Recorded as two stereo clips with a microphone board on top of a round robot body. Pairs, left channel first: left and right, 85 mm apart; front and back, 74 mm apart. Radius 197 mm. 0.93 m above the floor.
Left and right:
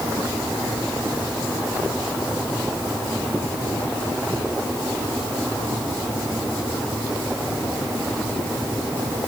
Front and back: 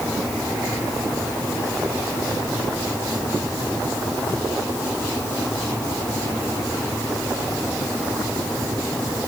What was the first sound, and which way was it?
Only background noise.